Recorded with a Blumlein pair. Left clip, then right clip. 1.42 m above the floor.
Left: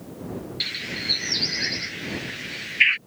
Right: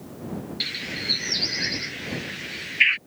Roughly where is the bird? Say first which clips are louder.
Left 1 dB; ahead.